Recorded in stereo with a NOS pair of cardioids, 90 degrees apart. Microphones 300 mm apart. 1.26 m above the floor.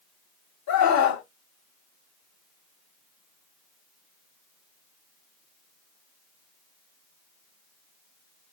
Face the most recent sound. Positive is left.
turn(degrees=60)